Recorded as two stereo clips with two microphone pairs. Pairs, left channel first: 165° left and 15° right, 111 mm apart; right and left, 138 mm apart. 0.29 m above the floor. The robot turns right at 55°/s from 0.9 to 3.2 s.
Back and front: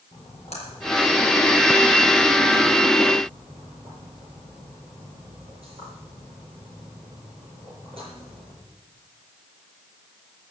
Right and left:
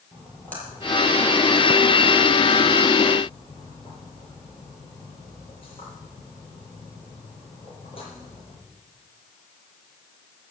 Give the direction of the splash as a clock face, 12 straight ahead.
6 o'clock.